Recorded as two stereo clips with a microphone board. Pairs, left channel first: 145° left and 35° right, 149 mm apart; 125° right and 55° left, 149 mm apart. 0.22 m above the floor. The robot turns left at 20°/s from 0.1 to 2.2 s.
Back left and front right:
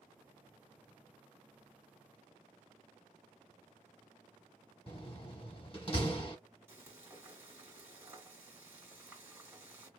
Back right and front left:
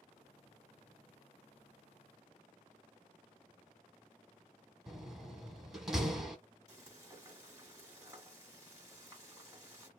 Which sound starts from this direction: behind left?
A door slam, at 4.9 s.